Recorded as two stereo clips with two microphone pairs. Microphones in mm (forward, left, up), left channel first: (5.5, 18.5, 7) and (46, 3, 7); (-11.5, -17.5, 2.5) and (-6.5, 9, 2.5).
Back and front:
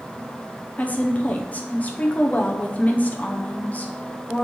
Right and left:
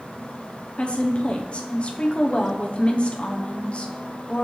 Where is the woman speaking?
150° right, 0.8 m.